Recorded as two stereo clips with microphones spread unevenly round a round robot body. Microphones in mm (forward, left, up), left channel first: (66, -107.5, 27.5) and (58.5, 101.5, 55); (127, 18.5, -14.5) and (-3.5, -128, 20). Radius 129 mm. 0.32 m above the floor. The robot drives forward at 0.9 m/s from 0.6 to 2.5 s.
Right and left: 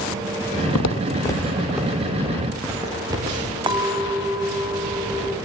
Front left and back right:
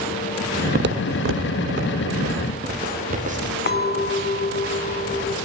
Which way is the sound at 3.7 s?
20° left.